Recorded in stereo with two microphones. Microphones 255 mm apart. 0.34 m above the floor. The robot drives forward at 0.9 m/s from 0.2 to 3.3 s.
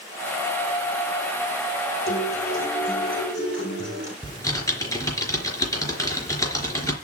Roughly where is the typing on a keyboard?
Centre.